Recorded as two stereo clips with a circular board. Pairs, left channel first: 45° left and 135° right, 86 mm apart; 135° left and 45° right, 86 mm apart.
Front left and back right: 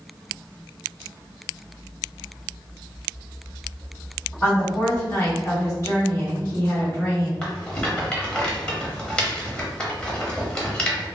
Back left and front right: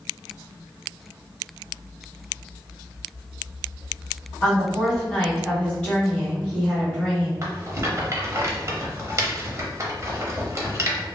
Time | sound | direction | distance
4.4 | a woman speaking | 75° left | 1.8 m
7.4 | a rattle | 25° right | 0.7 m